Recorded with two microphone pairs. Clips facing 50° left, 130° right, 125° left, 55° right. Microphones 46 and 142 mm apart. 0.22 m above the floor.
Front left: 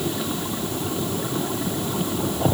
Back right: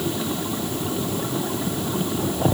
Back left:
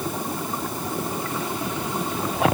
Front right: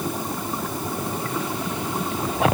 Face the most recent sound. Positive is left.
No sound to turn to.